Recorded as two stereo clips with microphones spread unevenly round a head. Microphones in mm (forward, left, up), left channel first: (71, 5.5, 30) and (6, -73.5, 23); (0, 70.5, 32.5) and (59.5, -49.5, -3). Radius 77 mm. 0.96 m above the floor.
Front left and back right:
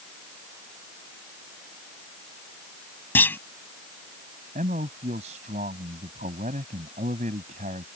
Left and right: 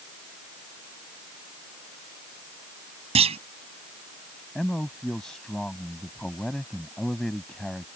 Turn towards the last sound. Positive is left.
turn(degrees=-160)